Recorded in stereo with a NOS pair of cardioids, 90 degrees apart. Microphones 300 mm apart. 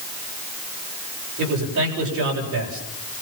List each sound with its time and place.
1.4 s a man speaking: 70° right, 8.5 m